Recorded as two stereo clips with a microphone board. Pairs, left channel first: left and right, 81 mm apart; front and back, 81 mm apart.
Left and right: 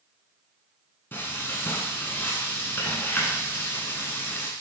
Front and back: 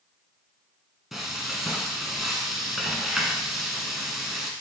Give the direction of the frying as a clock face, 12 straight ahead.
9 o'clock.